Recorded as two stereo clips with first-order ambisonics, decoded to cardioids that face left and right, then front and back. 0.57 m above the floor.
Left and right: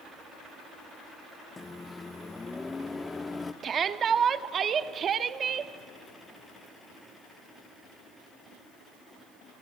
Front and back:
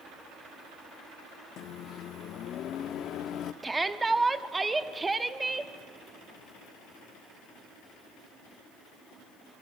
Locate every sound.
1.6 s a microwave: 20° left, 0.6 m
3.6 s a shout: 110° right, 0.7 m